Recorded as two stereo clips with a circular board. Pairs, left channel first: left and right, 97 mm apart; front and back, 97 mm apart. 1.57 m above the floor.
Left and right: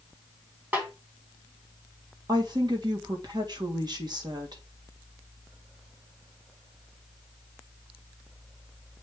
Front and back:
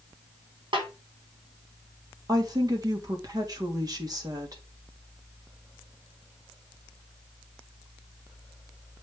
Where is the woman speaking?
130° right, 1.7 m.